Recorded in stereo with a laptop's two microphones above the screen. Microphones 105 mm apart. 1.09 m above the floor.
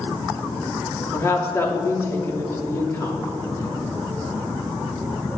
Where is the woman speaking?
25° left (ahead or behind), 2.5 m.